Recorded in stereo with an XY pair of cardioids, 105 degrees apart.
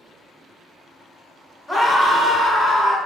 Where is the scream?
10° left, 1.0 m; by 3.0 s 60° left, 1.1 m.